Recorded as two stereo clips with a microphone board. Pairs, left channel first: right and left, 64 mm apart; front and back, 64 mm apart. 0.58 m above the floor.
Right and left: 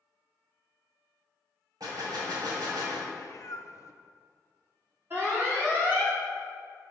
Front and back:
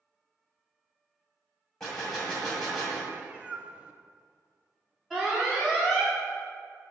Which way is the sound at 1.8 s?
80° left.